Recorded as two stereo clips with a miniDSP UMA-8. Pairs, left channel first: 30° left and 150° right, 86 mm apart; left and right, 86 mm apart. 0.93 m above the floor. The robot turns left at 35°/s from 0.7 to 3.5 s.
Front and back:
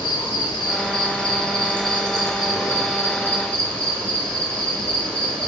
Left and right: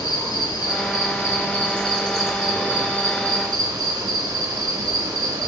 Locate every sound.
0.0 s an insect: 55° left, 0.7 m; by 5.5 s 45° right, 0.7 m